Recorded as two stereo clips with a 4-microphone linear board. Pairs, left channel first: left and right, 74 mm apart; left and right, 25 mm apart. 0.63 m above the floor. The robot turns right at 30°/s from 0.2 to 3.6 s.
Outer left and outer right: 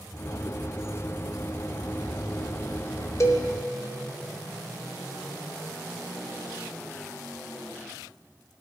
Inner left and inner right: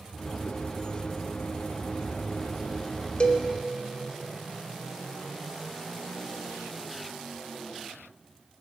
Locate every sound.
3.2 s a cowbell: 40° left (ahead or behind), 0.6 m; by 3.5 s 50° left (ahead or behind), 0.6 m